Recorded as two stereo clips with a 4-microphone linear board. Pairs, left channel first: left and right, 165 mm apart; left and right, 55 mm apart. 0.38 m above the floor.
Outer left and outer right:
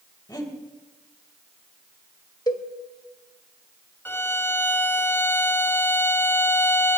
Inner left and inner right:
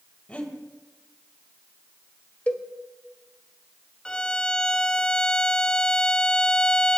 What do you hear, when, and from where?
0.3 s breathing: 25° left (ahead or behind), 2 m
2.5 s a cowbell: 25° left (ahead or behind), 1.1 m
4.0 s a violin: 15° left (ahead or behind), 0.6 m